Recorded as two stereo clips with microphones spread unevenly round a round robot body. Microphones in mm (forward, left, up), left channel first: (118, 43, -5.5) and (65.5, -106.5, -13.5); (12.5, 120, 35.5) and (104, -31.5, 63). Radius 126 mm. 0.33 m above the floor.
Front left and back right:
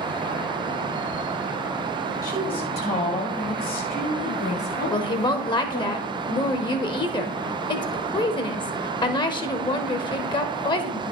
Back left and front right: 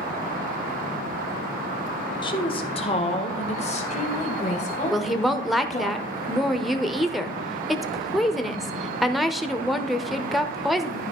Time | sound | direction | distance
2.2 | a woman speaking | 135° left | 1.5 m
4.9 | a woman speaking | 50° left | 0.9 m